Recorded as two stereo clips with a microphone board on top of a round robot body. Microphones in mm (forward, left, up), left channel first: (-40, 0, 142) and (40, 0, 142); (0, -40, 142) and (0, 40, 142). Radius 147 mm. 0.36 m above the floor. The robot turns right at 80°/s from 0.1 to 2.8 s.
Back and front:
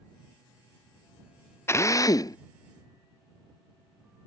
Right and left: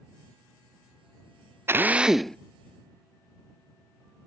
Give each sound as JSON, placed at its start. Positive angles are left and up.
{"t": 1.7, "sound": "a drill", "azimuth_deg": 135}